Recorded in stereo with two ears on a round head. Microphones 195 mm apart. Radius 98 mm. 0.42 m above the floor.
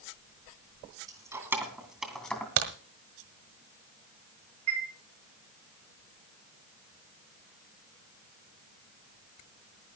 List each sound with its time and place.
1.1 s keys jangling: 15° right (ahead or behind), 2.5 m; by 2.5 s 5° left (ahead or behind), 2.5 m
2.6 s a crack: 65° right (ahead or behind), 1.6 m
4.7 s a chime: 75° right (ahead or behind), 3.5 m